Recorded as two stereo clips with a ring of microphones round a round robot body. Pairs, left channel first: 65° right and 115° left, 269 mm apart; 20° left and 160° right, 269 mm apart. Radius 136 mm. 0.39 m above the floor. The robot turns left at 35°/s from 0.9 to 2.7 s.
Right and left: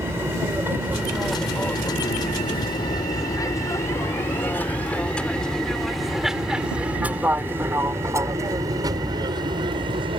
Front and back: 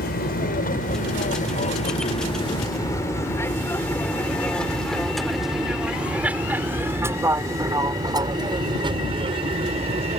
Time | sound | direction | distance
0.0 | an aircraft | 40° left | ?